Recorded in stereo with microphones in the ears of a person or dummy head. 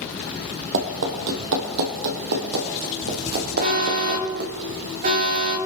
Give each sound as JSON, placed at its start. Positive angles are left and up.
{"t": 0.7, "sound": "running footsteps", "side_deg": -55, "distance_m": 2.0}
{"t": 3.6, "sound": "an alarm", "side_deg": -50, "distance_m": 7.0}